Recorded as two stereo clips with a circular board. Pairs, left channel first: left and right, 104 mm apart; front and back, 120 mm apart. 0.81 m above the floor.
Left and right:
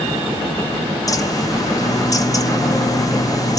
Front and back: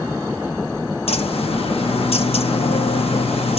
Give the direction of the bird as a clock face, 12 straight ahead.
11 o'clock.